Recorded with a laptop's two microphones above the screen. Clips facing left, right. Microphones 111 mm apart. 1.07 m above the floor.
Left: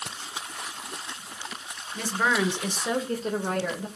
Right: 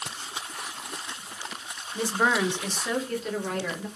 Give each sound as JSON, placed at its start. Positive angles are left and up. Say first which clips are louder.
{"t": 1.9, "sound": "a woman speaking", "louder": "right 1 dB", "side_deg": -25, "distance_m": 0.8}